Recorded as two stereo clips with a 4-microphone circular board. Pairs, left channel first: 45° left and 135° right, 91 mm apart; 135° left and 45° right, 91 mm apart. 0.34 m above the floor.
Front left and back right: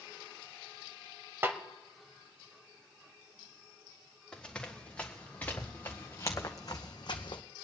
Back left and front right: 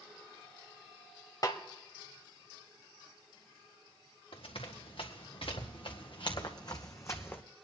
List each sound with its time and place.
1.4 s a snare drum: 170° left, 1.1 m
4.3 s running footsteps: 125° left, 2.5 m; by 7.4 s 65° left, 1.2 m